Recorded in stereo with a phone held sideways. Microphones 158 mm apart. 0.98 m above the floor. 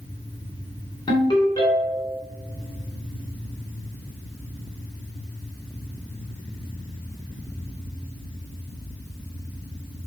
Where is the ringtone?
25° left (ahead or behind), 2.5 m.